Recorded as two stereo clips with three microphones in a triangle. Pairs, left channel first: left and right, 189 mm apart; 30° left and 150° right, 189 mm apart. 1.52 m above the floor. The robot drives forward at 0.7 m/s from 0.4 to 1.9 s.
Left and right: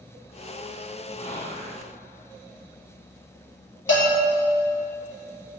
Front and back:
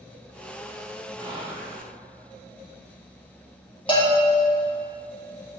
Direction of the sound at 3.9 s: 95° left.